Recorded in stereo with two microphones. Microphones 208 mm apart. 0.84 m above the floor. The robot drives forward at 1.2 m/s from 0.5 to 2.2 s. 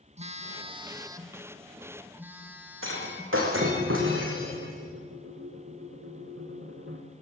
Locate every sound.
0.2 s a phone buzzing: 30° right (ahead or behind), 0.9 m; by 3.4 s 10° right (ahead or behind), 3 m
2.8 s breaking glass: 70° right (ahead or behind), 5 m